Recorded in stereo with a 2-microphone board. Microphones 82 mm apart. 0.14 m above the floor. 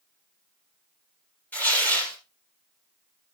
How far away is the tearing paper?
About 3 m.